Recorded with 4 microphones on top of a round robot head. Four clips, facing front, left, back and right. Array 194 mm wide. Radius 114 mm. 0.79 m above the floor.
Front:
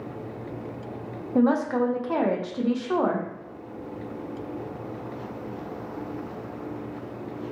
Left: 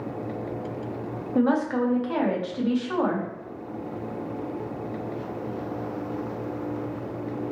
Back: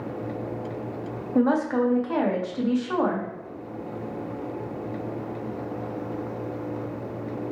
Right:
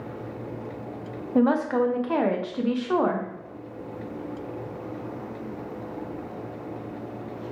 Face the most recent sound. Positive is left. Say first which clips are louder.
# right 1 dB, even
turn(degrees=-70)